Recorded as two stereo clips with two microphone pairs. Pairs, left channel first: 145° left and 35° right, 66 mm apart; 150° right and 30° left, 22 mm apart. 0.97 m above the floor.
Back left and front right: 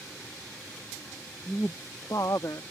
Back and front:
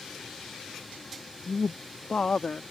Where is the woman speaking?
145° right; by 2.6 s 165° left.